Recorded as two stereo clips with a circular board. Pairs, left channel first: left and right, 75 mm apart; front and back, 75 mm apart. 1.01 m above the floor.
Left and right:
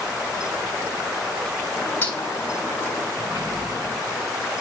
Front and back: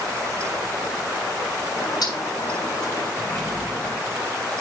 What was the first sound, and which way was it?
A bird, 25° left.